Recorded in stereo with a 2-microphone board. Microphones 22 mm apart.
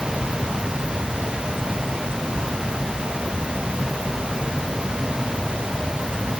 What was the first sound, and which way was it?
Only background noise.